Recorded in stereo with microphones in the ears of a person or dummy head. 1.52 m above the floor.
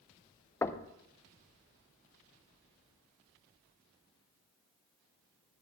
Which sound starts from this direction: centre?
Knocking, at 0.6 s.